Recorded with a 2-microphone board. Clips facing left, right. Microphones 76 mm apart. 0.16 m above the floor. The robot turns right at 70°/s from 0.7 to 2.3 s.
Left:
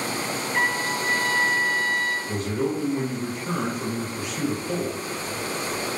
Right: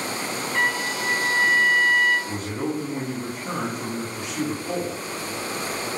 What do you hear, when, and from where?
0.5 s a trumpet: 165° left, 1.1 m; by 2.2 s 90° right, 1.1 m
2.3 s a man speaking: 10° right (ahead or behind), 1.5 m